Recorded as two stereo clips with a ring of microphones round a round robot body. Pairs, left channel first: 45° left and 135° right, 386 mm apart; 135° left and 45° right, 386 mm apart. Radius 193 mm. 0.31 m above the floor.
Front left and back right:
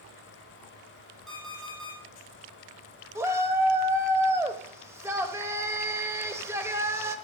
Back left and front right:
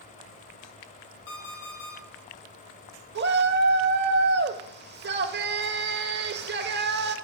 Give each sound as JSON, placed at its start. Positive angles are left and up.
{"t": 1.3, "sound": "an alarm clock", "azimuth_deg": 135, "distance_m": 5.0}
{"t": 3.1, "sound": "a shout", "azimuth_deg": -60, "distance_m": 1.0}